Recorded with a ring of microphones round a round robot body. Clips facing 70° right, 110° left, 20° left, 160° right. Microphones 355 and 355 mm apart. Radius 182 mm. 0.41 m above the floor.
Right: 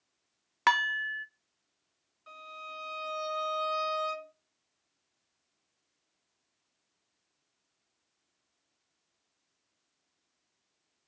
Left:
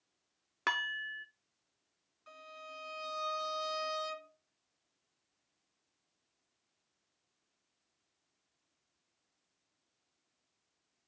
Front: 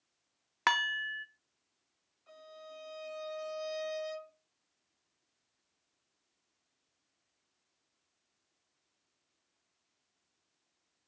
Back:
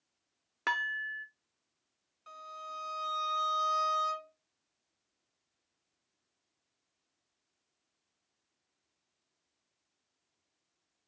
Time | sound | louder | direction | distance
0.7 | dishes clattering | right 9 dB, front 4 dB | 15° right | 0.6 m
2.3 | a violin | right 2 dB, front 1 dB | 160° right | 2.5 m